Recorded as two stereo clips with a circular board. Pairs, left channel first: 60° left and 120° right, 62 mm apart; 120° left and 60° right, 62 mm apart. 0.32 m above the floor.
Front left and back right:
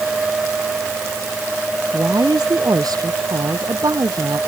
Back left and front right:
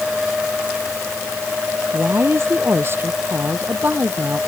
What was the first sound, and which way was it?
A woman speaking, 110° right.